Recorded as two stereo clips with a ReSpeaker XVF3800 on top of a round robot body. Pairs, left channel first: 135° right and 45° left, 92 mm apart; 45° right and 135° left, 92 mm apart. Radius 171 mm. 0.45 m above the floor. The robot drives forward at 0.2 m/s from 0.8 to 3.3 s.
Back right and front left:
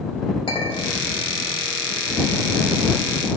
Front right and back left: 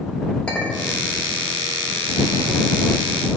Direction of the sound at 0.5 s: 120° right.